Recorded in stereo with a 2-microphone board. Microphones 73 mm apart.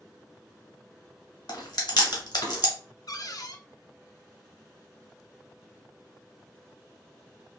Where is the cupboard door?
55° left (ahead or behind), 0.5 m.